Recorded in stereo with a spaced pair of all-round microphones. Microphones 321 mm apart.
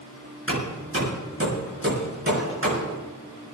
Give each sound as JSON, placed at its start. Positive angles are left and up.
{"t": 0.5, "sound": "hammering", "side_deg": -40, "distance_m": 5.0}